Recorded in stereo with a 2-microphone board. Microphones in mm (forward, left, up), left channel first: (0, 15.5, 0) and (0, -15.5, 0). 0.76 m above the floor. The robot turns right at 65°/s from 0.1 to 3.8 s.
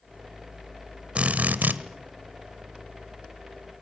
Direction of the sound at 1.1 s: 145° right.